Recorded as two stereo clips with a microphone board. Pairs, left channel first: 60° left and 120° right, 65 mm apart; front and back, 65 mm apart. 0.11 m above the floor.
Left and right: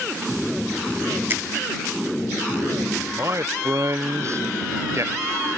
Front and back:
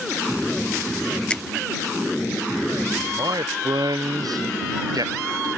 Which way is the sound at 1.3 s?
70° right.